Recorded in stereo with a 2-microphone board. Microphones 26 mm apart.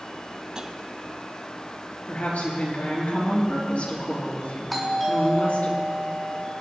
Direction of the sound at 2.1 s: 75° left (ahead or behind).